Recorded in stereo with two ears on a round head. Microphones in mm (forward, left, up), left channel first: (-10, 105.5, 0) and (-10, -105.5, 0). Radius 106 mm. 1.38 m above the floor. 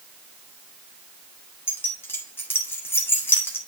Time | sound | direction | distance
1.7 | keys jangling | 10° left (ahead or behind) | 1.9 m